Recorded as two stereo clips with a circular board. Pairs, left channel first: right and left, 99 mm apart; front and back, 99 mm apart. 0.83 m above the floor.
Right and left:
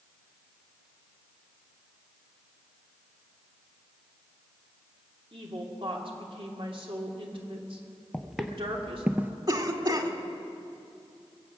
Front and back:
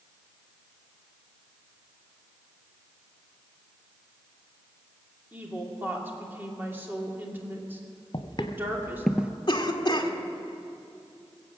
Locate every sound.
5.3 s a woman speaking: 110° left, 2.5 m
8.1 s footsteps: straight ahead, 1.2 m; by 9.3 s 135° left, 0.8 m
9.5 s a cough: 45° left, 1.8 m